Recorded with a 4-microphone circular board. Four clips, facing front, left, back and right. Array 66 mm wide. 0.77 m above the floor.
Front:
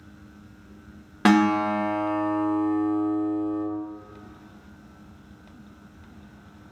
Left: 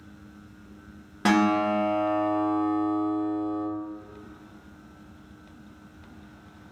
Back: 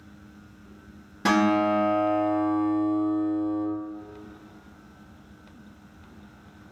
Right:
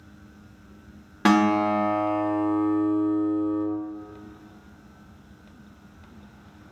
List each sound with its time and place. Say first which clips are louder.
1.2 s a guitar: right 2 dB, front 2 dB; 20° right, 0.8 m